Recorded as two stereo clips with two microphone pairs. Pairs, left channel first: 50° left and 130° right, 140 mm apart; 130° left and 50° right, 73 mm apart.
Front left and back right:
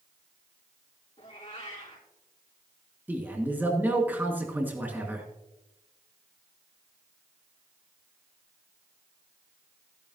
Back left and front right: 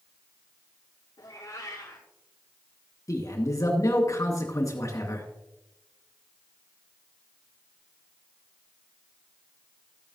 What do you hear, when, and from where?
1.2 s a cat meowing: 95° left, 4.5 m
3.1 s a man speaking: 155° left, 2 m